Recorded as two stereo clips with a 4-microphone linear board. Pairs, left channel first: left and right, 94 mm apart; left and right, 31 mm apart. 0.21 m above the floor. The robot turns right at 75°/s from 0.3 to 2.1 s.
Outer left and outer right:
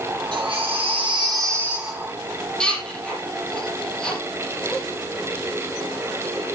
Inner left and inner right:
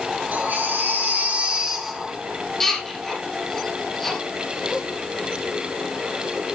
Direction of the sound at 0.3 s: 55° right (ahead or behind).